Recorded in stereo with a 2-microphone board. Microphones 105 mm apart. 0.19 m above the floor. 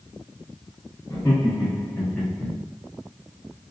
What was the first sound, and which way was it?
Laughter, 35° left (ahead or behind).